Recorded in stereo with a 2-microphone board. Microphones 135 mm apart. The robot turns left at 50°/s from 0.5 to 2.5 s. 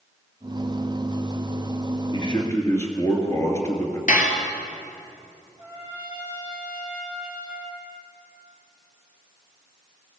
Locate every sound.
2.1 s a man speaking: 40° left (ahead or behind), 2.5 m; by 4.0 s 20° left (ahead or behind), 2.5 m
4.1 s dishes clattering: 60° left (ahead or behind), 1.9 m
5.6 s a trumpet: 35° left (ahead or behind), 4.5 m